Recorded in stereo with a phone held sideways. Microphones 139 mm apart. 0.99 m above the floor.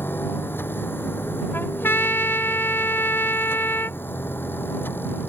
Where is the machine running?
15° left (ahead or behind).